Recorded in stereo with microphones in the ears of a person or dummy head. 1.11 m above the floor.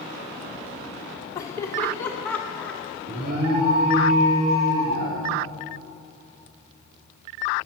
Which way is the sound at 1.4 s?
20° left (ahead or behind).